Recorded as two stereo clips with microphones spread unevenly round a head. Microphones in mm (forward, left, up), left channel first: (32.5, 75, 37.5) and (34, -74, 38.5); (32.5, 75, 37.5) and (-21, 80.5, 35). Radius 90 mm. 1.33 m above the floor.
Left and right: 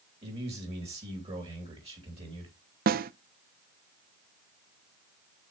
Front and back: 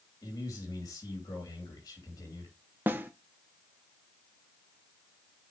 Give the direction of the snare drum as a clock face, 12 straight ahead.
4 o'clock.